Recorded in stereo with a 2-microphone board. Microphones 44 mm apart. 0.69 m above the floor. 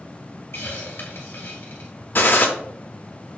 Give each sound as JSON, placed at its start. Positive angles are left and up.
{"t": 0.5, "sound": "a hiss", "side_deg": 75, "distance_m": 1.6}
{"t": 2.1, "sound": "a gunshot", "side_deg": 50, "distance_m": 0.5}